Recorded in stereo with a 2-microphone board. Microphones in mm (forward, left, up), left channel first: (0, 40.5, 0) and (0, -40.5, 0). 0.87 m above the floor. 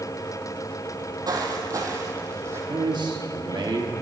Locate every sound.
0.9 s footsteps: 50° right (ahead or behind), 1.9 m; by 2.6 s 30° right (ahead or behind), 2 m
2.7 s a man speaking: 60° right (ahead or behind), 1.5 m